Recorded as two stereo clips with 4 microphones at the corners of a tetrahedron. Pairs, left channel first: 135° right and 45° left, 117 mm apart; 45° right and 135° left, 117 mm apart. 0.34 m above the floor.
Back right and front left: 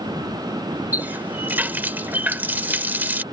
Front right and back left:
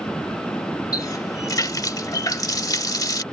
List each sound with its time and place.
0.9 s a running tap: 20° right